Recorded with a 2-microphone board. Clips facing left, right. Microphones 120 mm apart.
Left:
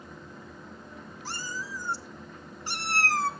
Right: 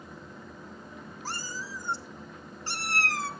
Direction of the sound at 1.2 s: 45° right (ahead or behind).